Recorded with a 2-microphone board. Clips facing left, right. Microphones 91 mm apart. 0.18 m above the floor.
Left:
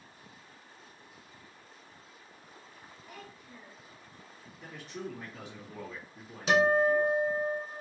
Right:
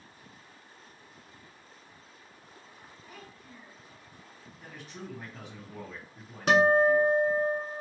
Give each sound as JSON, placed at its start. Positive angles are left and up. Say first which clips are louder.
{"t": 3.1, "sound": "a child speaking", "louder": "left 1 dB", "side_deg": 5, "distance_m": 2.0}
{"t": 4.6, "sound": "a man speaking", "louder": "left 3 dB", "side_deg": -5, "distance_m": 1.7}
{"t": 6.5, "sound": "a guitar", "louder": "right 3 dB", "side_deg": -55, "distance_m": 1.1}